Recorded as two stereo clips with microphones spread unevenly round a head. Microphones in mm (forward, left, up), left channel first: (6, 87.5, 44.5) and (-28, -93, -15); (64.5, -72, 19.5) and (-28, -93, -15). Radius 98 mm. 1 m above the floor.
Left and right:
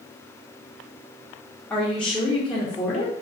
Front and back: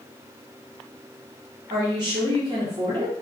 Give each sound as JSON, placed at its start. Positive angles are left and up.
{"t": 1.7, "sound": "a woman speaking", "azimuth_deg": 175, "distance_m": 0.6}